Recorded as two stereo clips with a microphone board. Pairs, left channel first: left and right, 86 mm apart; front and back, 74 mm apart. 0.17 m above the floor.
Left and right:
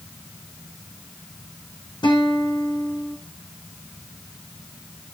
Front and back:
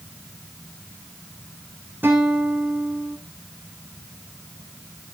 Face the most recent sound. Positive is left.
turn(degrees=120)